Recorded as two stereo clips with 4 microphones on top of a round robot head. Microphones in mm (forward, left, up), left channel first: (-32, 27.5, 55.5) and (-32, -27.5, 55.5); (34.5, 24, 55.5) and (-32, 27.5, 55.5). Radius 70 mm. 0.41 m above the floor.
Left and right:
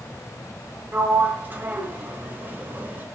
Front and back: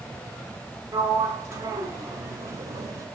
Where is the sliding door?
145° right, 1.1 m.